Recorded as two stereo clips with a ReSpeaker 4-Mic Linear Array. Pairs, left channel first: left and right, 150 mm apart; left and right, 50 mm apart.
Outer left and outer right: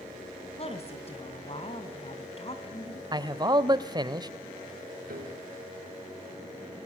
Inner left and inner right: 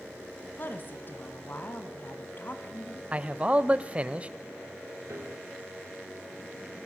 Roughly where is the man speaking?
Right.